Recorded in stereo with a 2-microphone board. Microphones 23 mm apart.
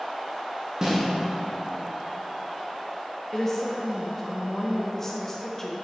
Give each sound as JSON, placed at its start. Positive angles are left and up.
{"t": 0.8, "sound": "a snare drum", "side_deg": -30, "distance_m": 1.4}
{"t": 3.3, "sound": "a woman speaking", "side_deg": 20, "distance_m": 0.7}